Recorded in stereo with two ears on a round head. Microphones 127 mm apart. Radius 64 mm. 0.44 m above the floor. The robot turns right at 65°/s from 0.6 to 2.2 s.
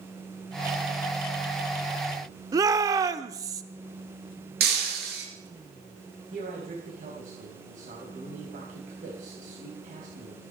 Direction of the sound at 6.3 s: 60° right (ahead or behind).